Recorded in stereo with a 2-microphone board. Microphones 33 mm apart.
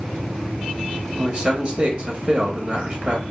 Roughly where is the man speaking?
Right.